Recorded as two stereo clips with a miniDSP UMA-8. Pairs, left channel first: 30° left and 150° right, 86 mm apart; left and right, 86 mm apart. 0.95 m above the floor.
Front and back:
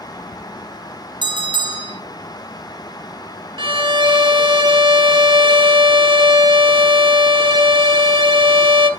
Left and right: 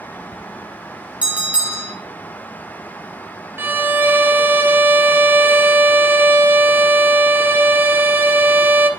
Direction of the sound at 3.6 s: 155° right.